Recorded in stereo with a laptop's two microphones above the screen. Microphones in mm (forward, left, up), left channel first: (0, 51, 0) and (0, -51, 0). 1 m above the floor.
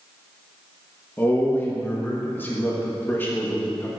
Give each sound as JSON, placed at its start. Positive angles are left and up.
{"t": 1.2, "sound": "a man speaking", "side_deg": 20, "distance_m": 1.4}